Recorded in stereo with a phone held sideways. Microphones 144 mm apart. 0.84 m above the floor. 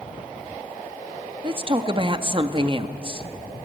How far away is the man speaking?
About 1.2 m.